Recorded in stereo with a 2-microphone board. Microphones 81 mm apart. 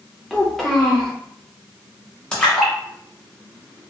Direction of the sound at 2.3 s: 10° left (ahead or behind).